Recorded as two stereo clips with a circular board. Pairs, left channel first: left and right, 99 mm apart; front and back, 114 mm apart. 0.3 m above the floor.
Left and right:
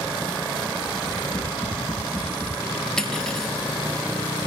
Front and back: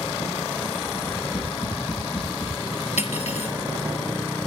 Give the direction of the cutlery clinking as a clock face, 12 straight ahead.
12 o'clock.